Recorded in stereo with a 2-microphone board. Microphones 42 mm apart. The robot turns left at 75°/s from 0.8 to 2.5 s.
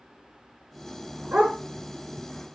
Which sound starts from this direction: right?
A dog barking, at 1.3 s.